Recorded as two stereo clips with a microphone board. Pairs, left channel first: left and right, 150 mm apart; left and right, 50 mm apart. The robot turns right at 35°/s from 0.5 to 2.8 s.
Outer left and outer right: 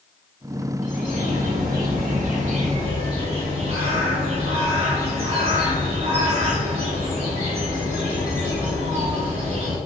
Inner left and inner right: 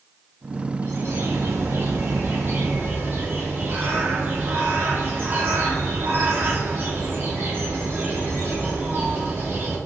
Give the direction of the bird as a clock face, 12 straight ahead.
4 o'clock.